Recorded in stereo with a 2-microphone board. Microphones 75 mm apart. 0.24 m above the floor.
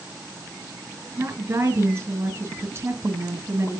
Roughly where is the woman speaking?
Right.